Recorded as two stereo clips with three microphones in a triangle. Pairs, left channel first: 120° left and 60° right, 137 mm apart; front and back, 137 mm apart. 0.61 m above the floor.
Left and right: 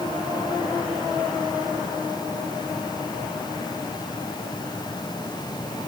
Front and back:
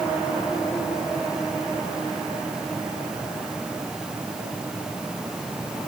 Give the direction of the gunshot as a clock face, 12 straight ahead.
I don't hear a gunshot.